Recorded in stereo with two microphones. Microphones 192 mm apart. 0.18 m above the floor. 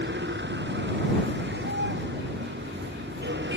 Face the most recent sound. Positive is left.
turn(degrees=-70)  # may be behind; listen again after turning